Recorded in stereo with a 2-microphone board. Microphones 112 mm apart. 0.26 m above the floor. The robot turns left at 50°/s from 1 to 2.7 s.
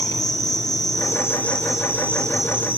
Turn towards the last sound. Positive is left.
turn(degrees=-50)